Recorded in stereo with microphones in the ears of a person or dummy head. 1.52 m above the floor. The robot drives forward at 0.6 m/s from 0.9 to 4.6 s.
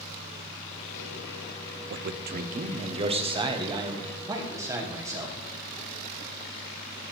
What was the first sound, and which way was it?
A man speaking, 60° right (ahead or behind).